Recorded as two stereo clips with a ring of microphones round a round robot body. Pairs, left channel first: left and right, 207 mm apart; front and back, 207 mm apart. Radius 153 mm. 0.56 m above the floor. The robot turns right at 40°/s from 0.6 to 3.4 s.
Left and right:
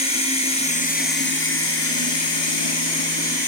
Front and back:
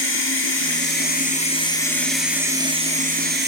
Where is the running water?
25° left, 3.5 m; by 3.5 s 140° left, 3.5 m.